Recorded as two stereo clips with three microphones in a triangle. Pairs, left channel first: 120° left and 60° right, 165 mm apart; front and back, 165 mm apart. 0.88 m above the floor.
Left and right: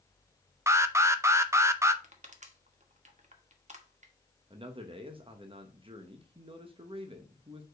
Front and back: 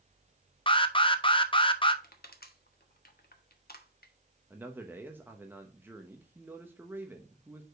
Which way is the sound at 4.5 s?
105° right.